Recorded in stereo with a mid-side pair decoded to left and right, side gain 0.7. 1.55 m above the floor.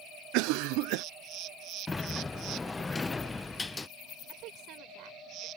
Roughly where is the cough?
Ahead right.